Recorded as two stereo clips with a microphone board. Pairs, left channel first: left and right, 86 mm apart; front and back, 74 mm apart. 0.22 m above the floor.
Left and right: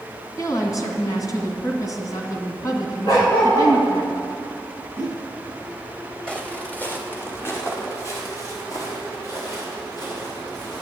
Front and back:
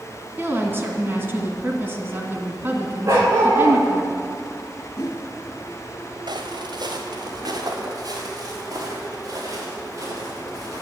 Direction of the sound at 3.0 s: 130° left.